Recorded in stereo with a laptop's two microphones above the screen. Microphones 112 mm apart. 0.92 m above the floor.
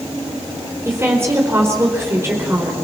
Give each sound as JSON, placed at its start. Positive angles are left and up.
{"t": 0.8, "sound": "a woman speaking", "side_deg": -25, "distance_m": 4.0}